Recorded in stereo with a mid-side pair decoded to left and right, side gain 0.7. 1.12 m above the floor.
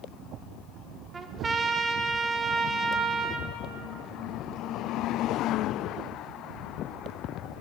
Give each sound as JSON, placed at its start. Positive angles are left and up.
{"t": 1.1, "sound": "a trumpet", "azimuth_deg": -20, "distance_m": 0.6}